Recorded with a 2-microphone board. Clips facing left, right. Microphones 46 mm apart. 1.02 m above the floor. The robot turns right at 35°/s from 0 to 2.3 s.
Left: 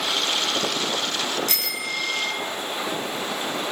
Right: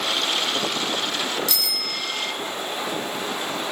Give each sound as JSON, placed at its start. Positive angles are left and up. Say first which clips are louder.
{"t": 1.5, "sound": "a bicycle bell", "louder": "even", "side_deg": 45, "distance_m": 4.5}